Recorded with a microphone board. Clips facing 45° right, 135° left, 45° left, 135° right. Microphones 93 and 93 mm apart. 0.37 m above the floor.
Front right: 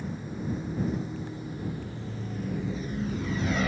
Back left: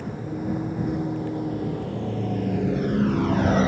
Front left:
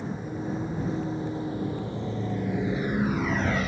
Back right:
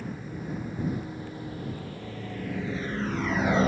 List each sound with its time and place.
0.0 s a vehicle: 110° left; by 3.7 s 165° right